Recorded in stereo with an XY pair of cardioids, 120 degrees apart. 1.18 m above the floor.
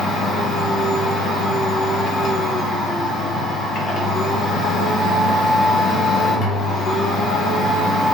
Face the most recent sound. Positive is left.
turn(degrees=65)